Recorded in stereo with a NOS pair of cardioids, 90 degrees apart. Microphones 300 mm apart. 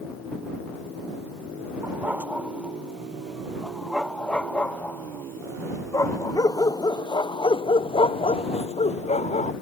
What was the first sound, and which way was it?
A dog barking, 5° right.